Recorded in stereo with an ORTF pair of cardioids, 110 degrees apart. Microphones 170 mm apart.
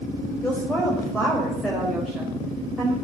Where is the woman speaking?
10° left, 5 m; by 2.9 s 10° right, 4.5 m.